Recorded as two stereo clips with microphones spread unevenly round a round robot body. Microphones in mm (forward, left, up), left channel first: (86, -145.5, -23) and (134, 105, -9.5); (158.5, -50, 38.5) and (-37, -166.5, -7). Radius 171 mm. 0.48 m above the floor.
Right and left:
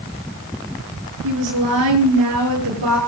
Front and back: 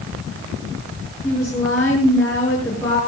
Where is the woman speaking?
115° left, 7 m.